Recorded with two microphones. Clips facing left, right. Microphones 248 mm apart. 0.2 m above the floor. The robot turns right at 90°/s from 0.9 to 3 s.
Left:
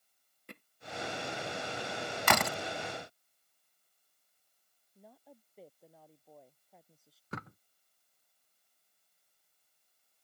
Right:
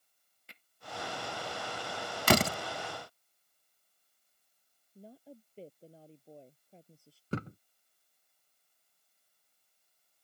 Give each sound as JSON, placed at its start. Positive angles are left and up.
{"t": 0.5, "sound": "hammering", "side_deg": 60}
{"t": 2.3, "sound": "a door slam", "side_deg": -40}
{"t": 5.0, "sound": "a woman speaking", "side_deg": -30}
{"t": 7.3, "sound": "a thud", "side_deg": -35}